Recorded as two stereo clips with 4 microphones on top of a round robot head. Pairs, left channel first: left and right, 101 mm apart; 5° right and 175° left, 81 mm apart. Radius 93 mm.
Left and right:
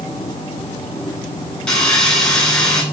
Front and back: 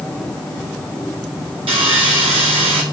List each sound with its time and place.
1.7 s sawing: 170° left, 6 m